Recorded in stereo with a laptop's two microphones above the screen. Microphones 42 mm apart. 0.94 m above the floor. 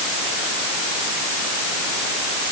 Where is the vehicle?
No vehicle in this recording.